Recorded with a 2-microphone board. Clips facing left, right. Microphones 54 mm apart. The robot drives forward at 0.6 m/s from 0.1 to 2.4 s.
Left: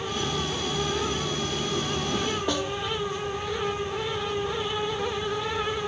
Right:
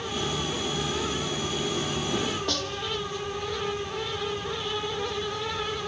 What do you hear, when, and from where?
2.5 s a snare drum: 15° left (ahead or behind)